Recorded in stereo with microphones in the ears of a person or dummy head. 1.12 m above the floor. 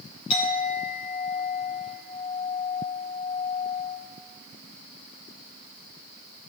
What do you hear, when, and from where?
0.3 s a clink: 45° left (ahead or behind), 4.5 m